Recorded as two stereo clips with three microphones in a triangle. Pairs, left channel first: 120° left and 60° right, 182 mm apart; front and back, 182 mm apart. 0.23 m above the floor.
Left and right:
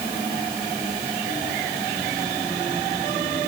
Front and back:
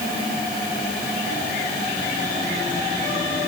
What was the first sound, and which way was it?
Only background noise.